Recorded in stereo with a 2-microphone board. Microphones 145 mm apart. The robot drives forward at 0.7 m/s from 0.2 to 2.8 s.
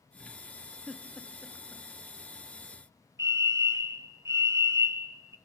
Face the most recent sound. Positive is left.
turn(degrees=-20)  # may be behind; listen again after turning